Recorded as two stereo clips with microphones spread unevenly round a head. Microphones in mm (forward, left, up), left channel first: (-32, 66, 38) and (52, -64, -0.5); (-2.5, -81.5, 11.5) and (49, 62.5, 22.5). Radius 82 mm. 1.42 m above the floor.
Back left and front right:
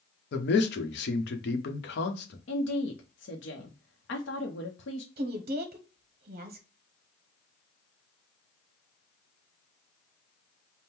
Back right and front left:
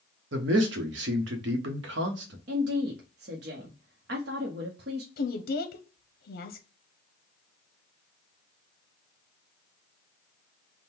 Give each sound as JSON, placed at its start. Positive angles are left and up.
{"t": 0.3, "sound": "a man speaking", "azimuth_deg": 95, "distance_m": 0.9}
{"t": 2.5, "sound": "a woman speaking", "azimuth_deg": 100, "distance_m": 0.8}
{"t": 5.2, "sound": "a woman speaking", "azimuth_deg": -100, "distance_m": 0.7}